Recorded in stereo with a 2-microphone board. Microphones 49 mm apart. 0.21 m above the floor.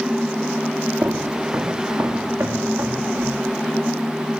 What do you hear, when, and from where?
1.0 s footsteps: 70° right (ahead or behind), 4.5 m; by 3.4 s 80° right, 7.5 m